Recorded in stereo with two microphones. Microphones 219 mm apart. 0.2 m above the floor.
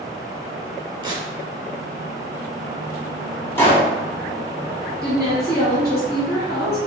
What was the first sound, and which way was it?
Tearing paper, 20° right (ahead or behind).